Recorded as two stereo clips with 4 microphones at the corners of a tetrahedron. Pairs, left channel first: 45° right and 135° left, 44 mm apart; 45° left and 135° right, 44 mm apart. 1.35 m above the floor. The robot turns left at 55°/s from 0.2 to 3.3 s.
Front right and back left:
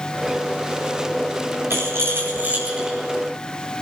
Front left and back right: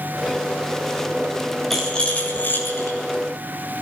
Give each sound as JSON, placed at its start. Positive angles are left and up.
{"t": 1.7, "sound": "a rattle", "azimuth_deg": 130, "distance_m": 7.0}